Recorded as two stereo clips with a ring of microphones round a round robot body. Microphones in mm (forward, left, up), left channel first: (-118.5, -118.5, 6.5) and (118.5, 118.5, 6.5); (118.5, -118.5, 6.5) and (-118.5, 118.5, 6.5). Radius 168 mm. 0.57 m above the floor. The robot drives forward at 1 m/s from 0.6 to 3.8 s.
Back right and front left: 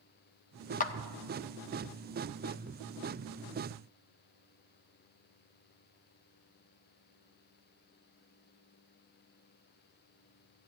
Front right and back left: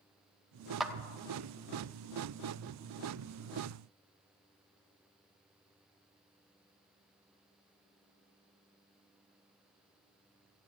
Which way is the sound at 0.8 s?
135° right.